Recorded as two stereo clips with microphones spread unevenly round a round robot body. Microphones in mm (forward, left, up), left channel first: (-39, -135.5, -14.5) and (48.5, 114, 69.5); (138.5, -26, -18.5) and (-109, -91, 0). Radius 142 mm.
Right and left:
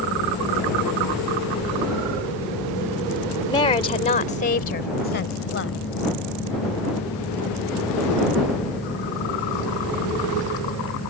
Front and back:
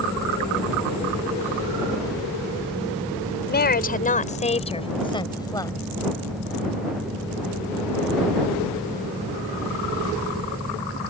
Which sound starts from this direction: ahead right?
A woman speaking, at 3.5 s.